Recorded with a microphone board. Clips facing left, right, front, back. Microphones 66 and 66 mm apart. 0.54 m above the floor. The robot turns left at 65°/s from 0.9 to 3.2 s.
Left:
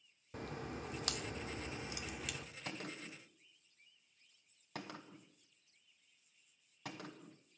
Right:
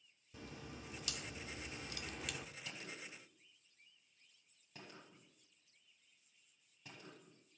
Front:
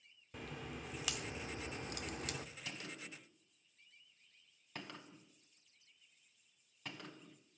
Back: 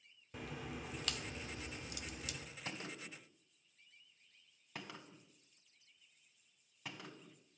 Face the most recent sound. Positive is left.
turn(degrees=95)